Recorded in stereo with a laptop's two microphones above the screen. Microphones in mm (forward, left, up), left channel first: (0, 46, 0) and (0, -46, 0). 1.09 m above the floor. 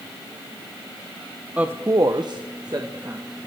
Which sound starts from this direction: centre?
A woman speaking, at 1.6 s.